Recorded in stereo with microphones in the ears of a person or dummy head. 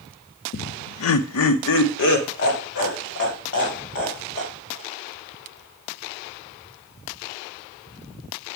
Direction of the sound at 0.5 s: 50° left (ahead or behind).